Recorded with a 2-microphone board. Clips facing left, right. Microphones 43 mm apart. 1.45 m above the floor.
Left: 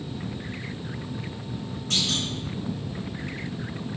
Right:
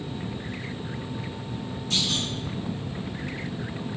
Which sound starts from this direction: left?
A clunk, at 1.9 s.